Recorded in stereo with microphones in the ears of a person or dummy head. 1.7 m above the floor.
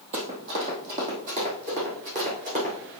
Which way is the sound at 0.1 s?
45° right (ahead or behind).